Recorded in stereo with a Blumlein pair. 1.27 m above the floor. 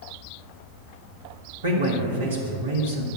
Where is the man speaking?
65° right, 2.0 m.